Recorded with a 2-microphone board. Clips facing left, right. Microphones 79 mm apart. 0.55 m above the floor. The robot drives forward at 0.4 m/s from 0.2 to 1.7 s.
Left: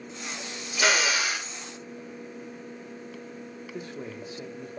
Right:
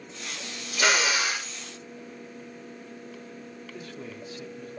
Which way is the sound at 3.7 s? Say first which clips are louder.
Left 4 dB; 25° left (ahead or behind).